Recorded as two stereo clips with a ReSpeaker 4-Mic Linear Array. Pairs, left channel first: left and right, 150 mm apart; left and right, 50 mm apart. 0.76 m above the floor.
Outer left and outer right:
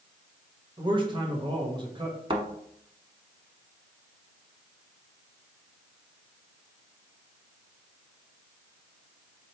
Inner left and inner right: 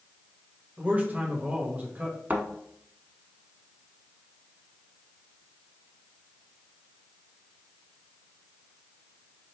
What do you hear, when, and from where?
0.8 s a man speaking: 30° right (ahead or behind), 1.1 m
2.3 s a thud: 35° right (ahead or behind), 0.9 m